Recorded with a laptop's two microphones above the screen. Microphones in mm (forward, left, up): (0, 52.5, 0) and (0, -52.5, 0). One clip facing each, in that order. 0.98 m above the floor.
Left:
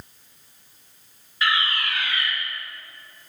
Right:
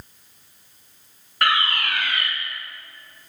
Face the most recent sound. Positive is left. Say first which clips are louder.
# right 3 dB
turn(degrees=-60)  # may be behind; listen again after turning